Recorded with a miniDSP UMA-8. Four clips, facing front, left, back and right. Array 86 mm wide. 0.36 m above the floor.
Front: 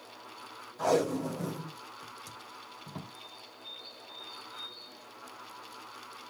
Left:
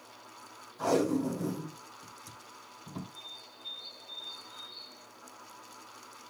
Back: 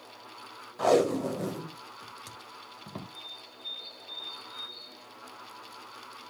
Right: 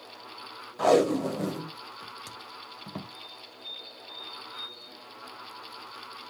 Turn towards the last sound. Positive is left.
turn(degrees=170)